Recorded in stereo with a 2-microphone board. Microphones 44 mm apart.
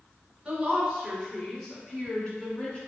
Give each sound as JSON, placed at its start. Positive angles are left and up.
{"t": 0.5, "sound": "a woman speaking", "side_deg": -20, "distance_m": 1.3}